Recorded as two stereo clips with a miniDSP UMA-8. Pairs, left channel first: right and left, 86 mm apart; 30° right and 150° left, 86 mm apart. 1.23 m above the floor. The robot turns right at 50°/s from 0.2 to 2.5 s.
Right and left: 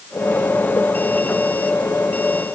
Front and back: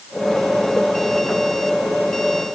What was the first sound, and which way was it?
Only background noise.